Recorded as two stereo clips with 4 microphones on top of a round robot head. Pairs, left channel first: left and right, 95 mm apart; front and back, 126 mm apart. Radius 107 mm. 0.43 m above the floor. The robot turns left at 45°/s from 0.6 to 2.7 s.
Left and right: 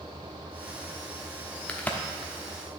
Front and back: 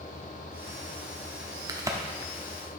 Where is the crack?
155° left, 1.0 m; by 2.8 s 110° left, 1.0 m.